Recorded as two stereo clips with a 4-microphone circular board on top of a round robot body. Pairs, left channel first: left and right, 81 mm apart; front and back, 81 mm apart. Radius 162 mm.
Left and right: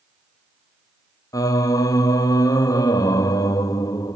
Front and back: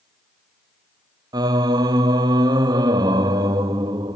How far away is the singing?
About 0.7 m.